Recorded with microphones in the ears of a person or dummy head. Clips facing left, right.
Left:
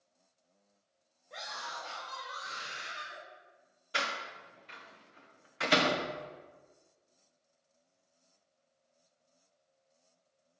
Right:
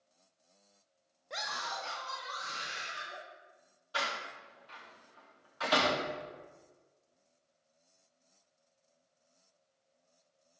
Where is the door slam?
35° left (ahead or behind), 0.8 m.